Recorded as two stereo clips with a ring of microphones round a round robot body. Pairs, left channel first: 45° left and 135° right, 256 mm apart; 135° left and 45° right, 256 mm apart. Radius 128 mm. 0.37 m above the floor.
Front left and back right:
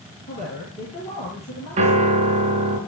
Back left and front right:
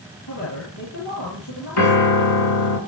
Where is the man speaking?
110° left, 9.5 m.